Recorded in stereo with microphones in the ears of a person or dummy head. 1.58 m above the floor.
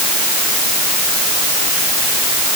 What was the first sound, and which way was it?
Only background noise.